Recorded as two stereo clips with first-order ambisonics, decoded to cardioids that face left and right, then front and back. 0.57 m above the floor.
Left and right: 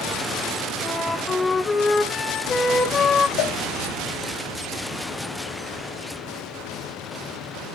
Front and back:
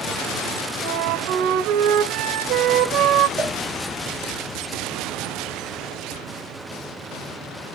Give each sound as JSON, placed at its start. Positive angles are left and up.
{"t": 0.8, "sound": "a flute", "azimuth_deg": 165, "distance_m": 2.0}
{"t": 3.4, "sound": "a cowbell", "azimuth_deg": 110, "distance_m": 3.0}